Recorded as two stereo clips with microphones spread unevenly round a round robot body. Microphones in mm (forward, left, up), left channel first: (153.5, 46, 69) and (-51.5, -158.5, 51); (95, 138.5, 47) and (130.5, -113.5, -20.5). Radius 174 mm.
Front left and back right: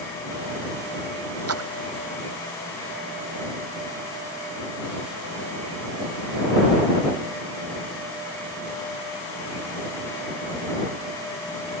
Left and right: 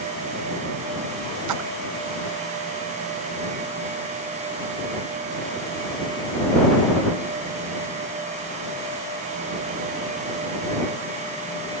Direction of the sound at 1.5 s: 100° right.